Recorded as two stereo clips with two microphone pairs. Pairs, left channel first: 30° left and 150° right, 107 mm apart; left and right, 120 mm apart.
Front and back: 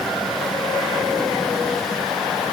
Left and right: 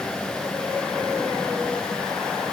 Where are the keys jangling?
No keys jangling in this recording.